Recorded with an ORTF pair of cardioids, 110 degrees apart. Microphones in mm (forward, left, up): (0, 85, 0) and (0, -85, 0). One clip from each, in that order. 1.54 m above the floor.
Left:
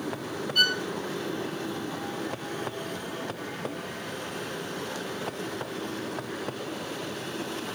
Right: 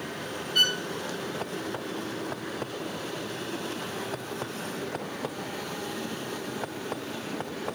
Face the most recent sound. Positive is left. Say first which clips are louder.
# even
turn(degrees=-15)